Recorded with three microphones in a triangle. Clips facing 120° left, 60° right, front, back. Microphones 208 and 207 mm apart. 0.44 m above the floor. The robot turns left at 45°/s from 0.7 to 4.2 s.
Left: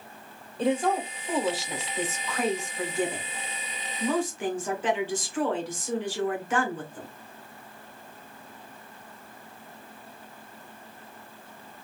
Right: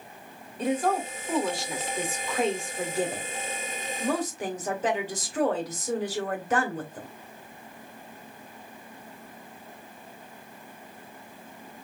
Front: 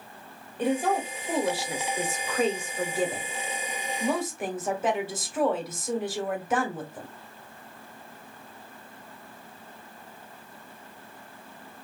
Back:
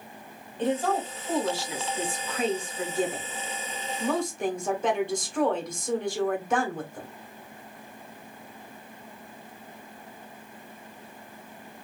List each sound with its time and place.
0.6 s a woman speaking: 75° left, 1.3 m; by 7.1 s 85° right, 1.3 m